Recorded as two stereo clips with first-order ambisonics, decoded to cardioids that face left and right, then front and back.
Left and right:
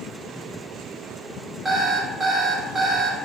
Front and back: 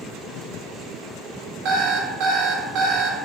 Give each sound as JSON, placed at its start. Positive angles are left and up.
{"t": 1.6, "sound": "an alarm clock", "azimuth_deg": -165, "distance_m": 0.6}